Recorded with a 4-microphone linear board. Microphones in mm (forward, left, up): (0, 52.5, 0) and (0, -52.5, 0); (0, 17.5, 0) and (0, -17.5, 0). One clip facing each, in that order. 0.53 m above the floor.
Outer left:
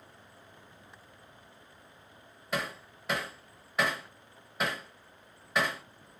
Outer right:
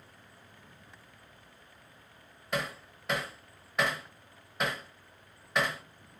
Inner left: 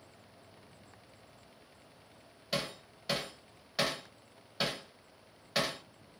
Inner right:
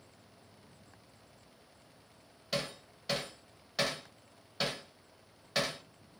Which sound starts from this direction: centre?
Hammering, at 2.5 s.